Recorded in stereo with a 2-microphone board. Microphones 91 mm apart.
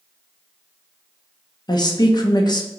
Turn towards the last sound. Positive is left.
turn(degrees=50)  # may be behind; listen again after turning